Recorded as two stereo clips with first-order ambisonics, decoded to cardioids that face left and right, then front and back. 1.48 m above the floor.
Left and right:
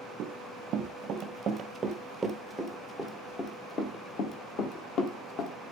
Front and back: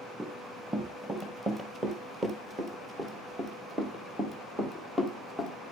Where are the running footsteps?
110° right, 2 m; by 5.7 s 95° left, 2.5 m.